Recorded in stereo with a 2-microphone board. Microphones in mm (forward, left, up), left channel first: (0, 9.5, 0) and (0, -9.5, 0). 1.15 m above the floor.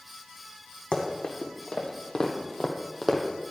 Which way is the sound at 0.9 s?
65° left (ahead or behind).